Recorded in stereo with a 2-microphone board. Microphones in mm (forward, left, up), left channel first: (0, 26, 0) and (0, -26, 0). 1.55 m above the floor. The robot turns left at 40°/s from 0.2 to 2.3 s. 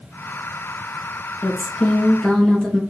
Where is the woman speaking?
45° left, 1.8 m; by 2.8 s 10° left, 1.8 m.